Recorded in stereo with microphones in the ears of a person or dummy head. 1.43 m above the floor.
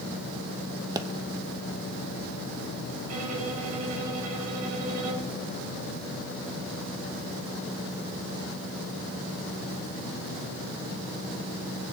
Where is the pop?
25° right (ahead or behind), 1.1 m.